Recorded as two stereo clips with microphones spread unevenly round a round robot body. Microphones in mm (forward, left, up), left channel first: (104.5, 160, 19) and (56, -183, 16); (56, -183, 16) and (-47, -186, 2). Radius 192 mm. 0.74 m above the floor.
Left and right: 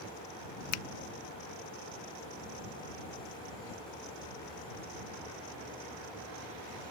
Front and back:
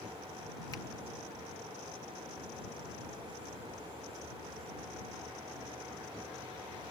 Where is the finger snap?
60° left.